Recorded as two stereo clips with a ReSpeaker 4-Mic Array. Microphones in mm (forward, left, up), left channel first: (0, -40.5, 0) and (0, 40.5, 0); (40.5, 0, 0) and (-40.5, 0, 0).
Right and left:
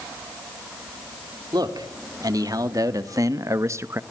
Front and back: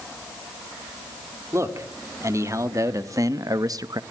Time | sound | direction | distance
1.5 | a man speaking | 125° left | 2.5 m